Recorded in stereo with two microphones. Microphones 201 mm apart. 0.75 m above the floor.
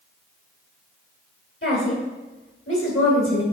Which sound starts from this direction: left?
A woman speaking, at 1.6 s.